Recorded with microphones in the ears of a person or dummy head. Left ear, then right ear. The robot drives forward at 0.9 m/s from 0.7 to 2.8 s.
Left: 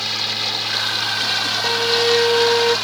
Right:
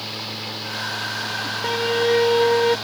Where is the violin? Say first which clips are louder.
Left 2 dB; centre (ahead or behind).